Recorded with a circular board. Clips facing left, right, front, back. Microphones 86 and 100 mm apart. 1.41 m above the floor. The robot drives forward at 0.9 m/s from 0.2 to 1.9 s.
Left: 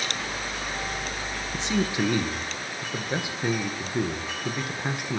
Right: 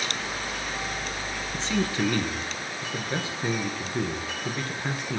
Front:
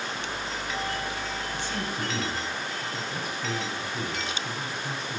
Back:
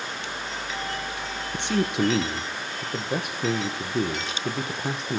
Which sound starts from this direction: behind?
A man speaking, at 1.5 s.